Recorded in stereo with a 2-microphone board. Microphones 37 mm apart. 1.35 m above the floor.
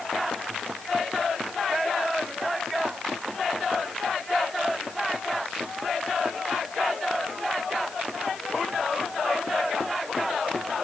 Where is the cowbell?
I don't hear a cowbell.